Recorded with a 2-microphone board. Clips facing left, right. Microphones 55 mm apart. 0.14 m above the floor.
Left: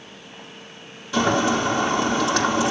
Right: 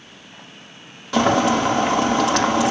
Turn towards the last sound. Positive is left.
turn(degrees=-65)  # may be behind; listen again after turning